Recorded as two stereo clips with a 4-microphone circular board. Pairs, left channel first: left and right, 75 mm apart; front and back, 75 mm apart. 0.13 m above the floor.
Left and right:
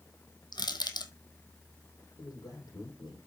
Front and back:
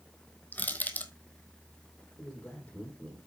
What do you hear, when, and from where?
0.5 s crushing: 70° left, 1.2 m
2.2 s a man speaking: 75° left, 5.5 m